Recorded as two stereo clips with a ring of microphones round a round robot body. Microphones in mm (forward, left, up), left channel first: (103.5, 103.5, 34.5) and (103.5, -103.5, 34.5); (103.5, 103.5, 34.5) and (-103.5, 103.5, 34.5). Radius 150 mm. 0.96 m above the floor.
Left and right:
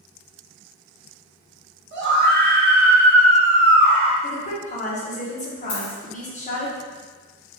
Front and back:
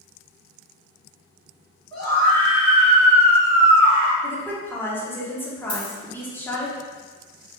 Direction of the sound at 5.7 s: 70° left.